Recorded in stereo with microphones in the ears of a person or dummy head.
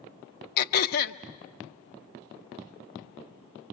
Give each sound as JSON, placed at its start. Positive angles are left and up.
{"t": 0.6, "sound": "throat clearing", "side_deg": 55, "distance_m": 0.7}